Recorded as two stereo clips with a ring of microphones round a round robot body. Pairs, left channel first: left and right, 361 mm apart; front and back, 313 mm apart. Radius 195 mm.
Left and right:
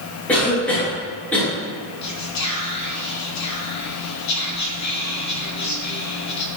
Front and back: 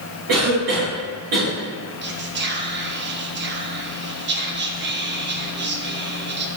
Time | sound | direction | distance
0.3 | a cough | 175° left | 2.5 m
2.0 | whispering | 125° left | 1.3 m